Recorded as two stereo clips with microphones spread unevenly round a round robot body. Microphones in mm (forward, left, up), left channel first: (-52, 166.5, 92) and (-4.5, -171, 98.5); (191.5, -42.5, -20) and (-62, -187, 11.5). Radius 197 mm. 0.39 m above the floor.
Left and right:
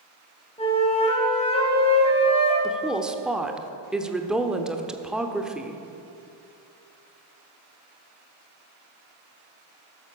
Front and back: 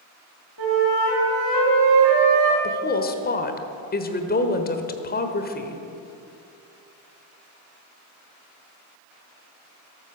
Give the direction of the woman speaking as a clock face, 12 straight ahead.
12 o'clock.